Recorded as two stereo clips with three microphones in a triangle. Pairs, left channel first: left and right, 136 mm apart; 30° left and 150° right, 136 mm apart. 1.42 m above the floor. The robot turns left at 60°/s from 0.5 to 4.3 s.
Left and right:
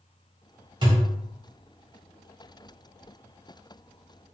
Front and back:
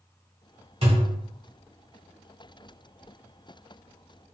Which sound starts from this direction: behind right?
A thud, at 0.8 s.